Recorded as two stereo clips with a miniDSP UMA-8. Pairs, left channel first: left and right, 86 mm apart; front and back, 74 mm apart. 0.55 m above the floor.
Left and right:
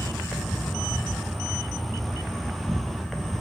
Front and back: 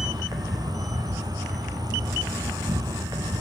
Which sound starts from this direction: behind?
An insect, at 0.0 s.